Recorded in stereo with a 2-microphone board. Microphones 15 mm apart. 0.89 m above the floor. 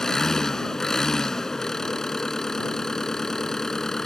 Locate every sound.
0.0 s an engine running: 45° left (ahead or behind)